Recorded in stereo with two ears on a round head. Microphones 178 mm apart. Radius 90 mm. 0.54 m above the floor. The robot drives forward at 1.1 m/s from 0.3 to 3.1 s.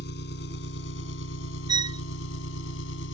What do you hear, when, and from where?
0.0 s an engine running: 60° left (ahead or behind); by 3.1 s 75° left (ahead or behind)
1.7 s a violin: 20° right (ahead or behind); by 2.0 s 25° right (ahead or behind)